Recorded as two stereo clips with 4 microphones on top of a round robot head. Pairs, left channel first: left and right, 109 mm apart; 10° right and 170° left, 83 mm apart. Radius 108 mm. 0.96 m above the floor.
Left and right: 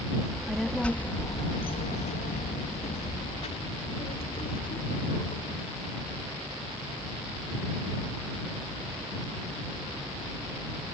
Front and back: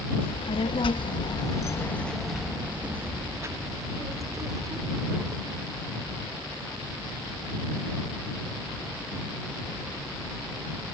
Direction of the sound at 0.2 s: 5° right.